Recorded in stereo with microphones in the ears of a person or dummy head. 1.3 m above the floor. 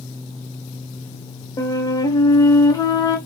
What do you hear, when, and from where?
1.6 s a flute: 15° left (ahead or behind), 0.9 m